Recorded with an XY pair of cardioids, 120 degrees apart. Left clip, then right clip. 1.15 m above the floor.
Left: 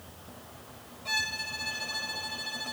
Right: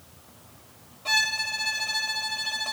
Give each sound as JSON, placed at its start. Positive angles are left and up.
{"t": 1.1, "sound": "a violin", "azimuth_deg": -40}